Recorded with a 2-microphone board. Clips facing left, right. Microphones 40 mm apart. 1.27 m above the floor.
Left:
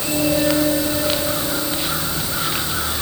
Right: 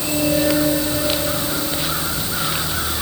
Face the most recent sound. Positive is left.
No sound to turn to.